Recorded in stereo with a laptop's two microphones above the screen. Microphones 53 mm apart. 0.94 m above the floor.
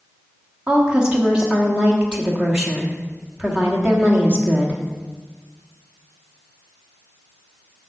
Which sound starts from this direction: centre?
A woman speaking, at 0.7 s.